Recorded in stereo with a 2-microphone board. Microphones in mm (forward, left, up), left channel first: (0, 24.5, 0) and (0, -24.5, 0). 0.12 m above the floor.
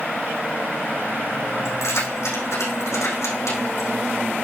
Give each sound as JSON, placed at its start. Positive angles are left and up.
{"t": 1.6, "sound": "keys jangling", "side_deg": 75, "distance_m": 4.5}